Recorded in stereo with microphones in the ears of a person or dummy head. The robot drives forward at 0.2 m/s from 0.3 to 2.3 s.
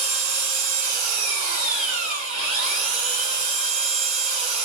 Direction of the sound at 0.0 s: 55° right (ahead or behind).